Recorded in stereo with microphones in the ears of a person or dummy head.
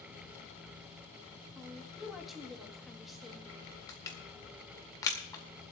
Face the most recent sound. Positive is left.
turn(degrees=15)  # may be behind; listen again after turning